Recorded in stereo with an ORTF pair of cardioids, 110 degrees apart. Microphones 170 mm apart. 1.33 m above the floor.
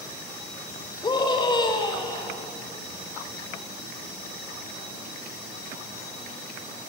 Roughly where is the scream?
Ahead left.